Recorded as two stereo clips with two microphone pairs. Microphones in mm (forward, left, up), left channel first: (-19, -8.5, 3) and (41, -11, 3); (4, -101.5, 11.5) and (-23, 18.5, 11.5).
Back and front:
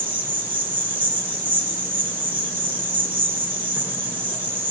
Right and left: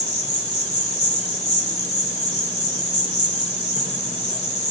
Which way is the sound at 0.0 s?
60° right.